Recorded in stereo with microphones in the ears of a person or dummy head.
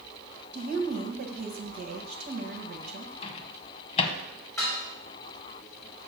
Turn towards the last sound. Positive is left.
turn(degrees=20)  # may be behind; listen again after turning